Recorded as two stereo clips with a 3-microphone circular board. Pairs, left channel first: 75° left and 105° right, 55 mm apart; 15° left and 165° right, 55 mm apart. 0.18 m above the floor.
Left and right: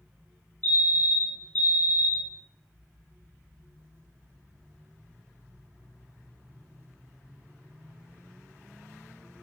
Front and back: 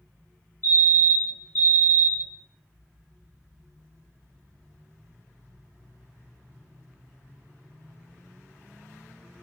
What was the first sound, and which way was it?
A fire alarm, 25° left.